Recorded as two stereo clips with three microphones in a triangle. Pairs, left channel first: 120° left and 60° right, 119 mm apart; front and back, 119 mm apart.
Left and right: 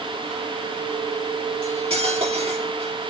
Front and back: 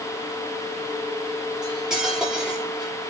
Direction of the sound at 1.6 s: 95° right.